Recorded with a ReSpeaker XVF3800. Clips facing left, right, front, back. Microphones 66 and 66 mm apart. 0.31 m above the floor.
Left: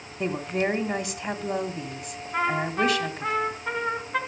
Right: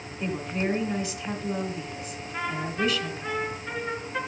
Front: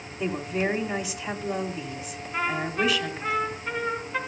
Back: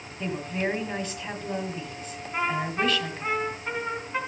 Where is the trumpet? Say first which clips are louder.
Left 5 dB, even; 105° left, 2.5 m.